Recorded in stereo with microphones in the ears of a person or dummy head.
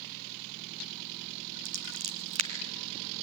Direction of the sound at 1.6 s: 40° right (ahead or behind).